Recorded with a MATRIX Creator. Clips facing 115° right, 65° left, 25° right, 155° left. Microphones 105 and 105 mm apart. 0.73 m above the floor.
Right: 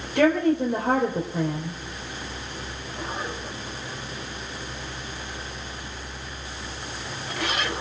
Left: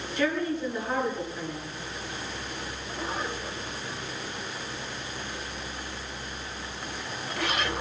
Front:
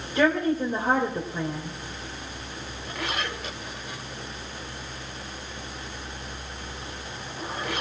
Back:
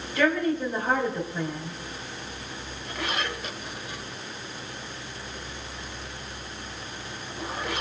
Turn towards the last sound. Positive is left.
turn(degrees=-95)